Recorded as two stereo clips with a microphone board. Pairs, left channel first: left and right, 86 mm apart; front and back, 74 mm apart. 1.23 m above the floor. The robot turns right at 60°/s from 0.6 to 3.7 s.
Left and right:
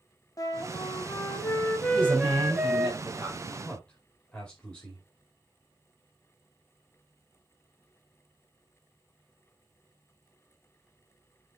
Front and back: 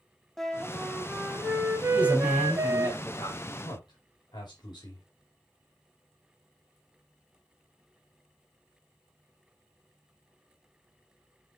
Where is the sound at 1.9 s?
120° right, 5 m; by 3.4 s 30° right, 5 m.